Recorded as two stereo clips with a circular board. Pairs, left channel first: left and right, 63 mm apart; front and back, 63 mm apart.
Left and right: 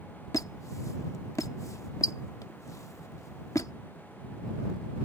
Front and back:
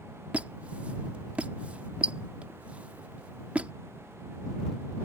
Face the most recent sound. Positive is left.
turn(degrees=110)